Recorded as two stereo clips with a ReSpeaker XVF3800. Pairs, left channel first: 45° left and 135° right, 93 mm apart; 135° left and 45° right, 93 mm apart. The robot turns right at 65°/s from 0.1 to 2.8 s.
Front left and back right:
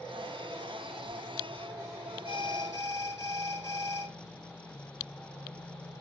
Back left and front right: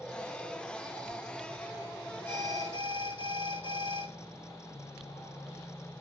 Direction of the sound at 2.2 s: 70° left.